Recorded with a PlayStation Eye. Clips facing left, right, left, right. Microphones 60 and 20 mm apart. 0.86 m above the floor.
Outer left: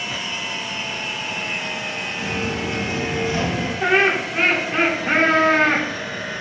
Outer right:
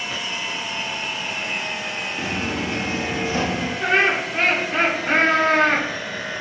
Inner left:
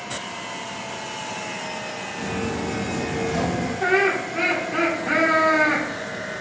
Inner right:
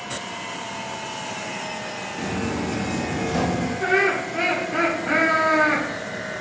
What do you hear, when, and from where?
2.2 s footsteps: 40° right (ahead or behind), 1.0 m; by 3.7 s 20° right (ahead or behind), 1.6 m
3.8 s laughter: 10° left (ahead or behind), 1.8 m